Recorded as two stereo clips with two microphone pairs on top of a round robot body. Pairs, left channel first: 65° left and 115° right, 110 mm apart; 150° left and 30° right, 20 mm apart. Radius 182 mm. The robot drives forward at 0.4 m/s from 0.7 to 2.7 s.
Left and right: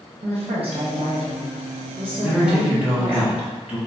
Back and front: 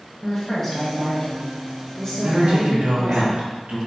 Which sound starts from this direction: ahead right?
A man speaking, at 2.2 s.